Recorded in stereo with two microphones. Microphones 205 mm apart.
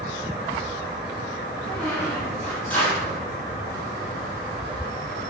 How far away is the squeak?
About 5 m.